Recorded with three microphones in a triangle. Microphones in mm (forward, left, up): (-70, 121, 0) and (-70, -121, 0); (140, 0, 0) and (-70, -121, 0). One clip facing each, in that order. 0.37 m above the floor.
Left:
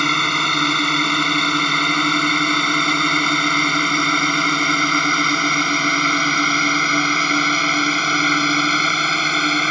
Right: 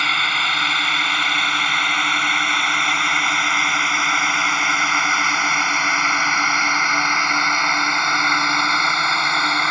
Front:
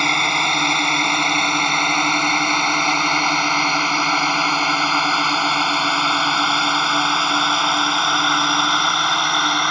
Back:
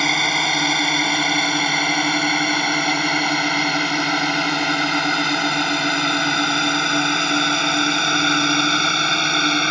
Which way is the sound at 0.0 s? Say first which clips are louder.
Left 10 dB, back 1 dB; 125° left.